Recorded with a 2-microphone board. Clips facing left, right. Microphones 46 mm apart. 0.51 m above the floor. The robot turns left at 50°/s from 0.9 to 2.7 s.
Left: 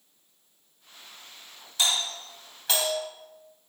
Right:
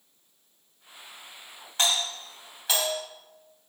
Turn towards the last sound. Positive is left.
turn(degrees=-5)  # may be behind; listen again after turning